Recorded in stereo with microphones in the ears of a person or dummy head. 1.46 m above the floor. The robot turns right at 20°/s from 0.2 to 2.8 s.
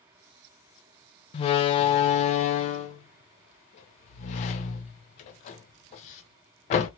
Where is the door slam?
30° left (ahead or behind), 0.5 m; by 6.9 s 35° left (ahead or behind), 0.5 m.